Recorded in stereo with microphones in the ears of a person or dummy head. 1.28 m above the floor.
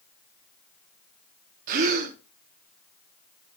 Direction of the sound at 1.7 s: 50° right (ahead or behind).